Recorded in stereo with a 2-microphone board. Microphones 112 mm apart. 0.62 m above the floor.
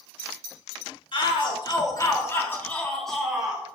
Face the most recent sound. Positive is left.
turn(degrees=-10)  # may be behind; listen again after turning